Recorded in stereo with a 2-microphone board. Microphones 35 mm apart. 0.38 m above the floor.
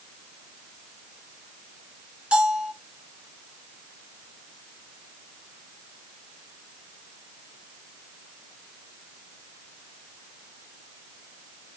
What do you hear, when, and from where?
2.3 s a bell: 30° right (ahead or behind), 1.5 m